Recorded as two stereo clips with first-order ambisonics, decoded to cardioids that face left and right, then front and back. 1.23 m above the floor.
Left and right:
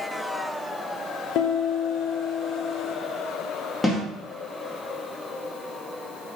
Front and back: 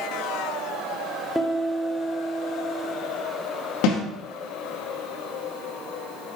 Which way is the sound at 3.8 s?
15° left.